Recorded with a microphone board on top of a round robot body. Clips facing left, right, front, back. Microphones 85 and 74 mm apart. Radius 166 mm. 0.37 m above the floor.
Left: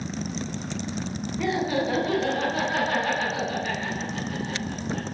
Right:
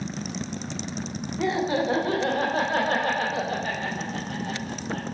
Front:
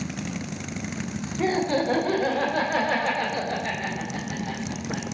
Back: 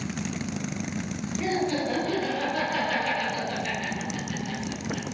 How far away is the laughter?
About 2.5 m.